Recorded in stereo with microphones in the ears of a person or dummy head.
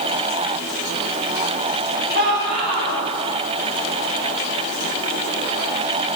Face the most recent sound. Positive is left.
turn(degrees=-55)  # may be behind; listen again after turning